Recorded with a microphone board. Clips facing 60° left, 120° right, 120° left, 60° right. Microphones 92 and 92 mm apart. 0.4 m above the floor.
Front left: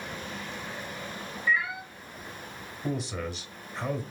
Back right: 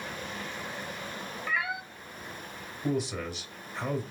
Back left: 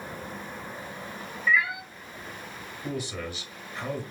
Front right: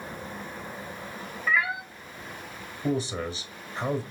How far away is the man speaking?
About 1.2 m.